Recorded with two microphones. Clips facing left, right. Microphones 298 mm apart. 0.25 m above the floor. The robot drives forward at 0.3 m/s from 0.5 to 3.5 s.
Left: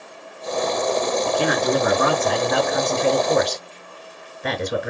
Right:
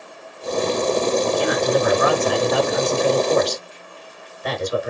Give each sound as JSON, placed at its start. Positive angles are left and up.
{"t": 1.2, "sound": "a man speaking", "side_deg": 60, "distance_m": 3.5}